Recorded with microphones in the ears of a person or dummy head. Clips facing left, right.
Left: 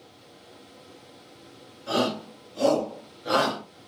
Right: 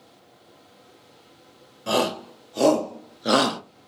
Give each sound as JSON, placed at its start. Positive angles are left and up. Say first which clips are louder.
{"t": 1.9, "sound": "a shout", "louder": "right 2 dB", "side_deg": -75, "distance_m": 1.4}